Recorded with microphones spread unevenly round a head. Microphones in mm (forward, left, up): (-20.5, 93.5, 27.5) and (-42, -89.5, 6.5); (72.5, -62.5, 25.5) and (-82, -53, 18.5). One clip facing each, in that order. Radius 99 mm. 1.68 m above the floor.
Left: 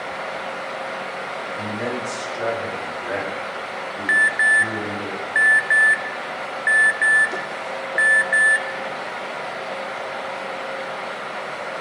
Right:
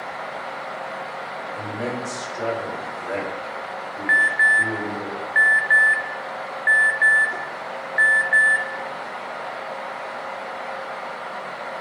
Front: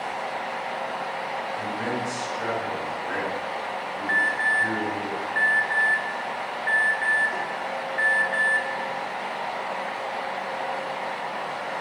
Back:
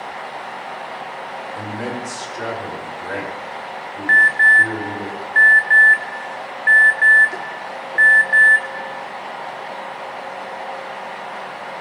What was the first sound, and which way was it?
A man speaking, 170° left.